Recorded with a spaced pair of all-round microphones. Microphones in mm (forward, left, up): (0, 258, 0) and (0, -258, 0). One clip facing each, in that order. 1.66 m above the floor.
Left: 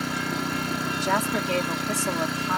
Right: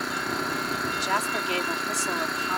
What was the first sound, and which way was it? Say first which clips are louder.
An engine running: left 3 dB; 50° left (ahead or behind).